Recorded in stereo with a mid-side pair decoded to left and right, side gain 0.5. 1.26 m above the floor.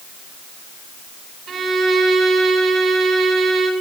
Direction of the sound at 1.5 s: 50° right.